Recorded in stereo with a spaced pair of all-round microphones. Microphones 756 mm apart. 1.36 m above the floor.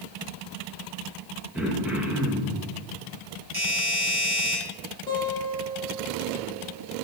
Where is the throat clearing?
Centre (ahead or behind), 1.3 m.